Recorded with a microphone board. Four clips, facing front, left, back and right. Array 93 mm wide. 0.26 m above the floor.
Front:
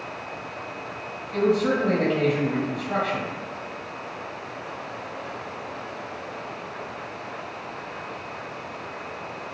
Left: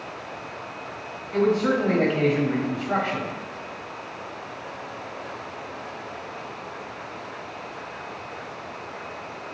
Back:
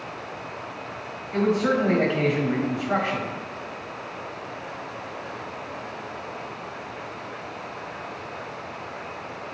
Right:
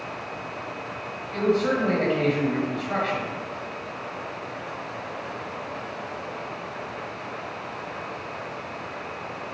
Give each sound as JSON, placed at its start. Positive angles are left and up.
{"t": 1.3, "sound": "a man speaking", "azimuth_deg": 155, "distance_m": 1.0}